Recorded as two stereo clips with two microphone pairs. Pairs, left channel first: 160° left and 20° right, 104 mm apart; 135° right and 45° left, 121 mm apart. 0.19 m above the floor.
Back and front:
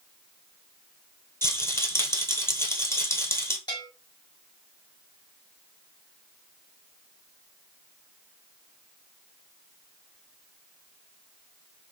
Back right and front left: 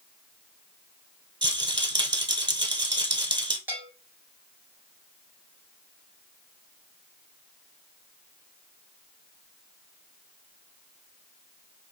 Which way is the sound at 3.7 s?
120° left.